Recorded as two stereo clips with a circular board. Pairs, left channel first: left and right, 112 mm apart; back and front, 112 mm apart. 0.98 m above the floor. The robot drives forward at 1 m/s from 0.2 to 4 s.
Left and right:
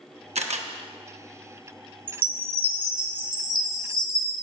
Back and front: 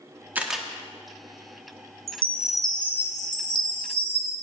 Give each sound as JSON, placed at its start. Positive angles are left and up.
{"t": 0.3, "sound": "a camera shutter", "azimuth_deg": -75, "distance_m": 0.9}
{"t": 2.1, "sound": "a chime", "azimuth_deg": -55, "distance_m": 1.2}